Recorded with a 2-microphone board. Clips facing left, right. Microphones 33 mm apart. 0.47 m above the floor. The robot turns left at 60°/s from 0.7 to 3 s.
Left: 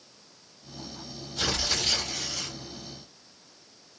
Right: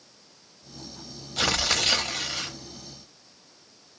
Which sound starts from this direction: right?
Tearing paper, at 1.4 s.